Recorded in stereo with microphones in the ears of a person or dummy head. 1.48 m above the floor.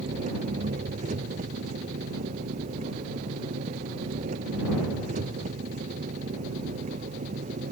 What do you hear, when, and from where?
0.0 s an engine running: 40° right (ahead or behind)